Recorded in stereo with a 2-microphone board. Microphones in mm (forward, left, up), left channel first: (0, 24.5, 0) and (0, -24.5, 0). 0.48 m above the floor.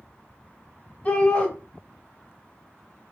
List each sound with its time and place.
1.1 s a shout: 20° left (ahead or behind), 2 m